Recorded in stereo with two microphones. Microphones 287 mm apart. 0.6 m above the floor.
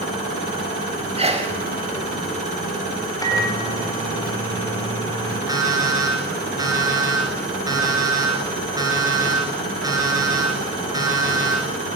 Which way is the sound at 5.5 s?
10° right (ahead or behind).